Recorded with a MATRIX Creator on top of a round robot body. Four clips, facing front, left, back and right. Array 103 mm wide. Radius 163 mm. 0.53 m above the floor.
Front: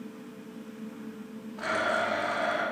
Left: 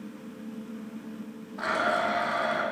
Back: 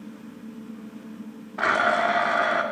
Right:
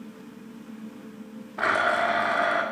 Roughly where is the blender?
Behind right.